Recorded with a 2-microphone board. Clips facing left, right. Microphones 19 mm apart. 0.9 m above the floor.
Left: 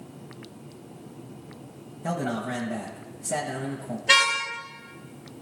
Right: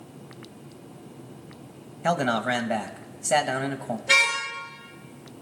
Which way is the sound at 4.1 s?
45° left (ahead or behind).